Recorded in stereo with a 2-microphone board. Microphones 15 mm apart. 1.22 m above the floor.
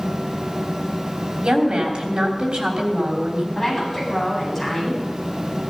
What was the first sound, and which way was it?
A woman speaking, 70° right (ahead or behind).